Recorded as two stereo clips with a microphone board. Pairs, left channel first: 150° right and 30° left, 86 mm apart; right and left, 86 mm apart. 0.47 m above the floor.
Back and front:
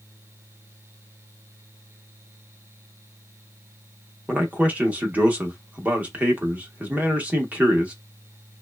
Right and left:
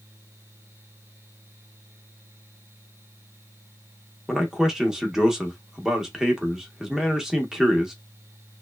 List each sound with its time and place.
4.3 s a man speaking: 15° left, 0.7 m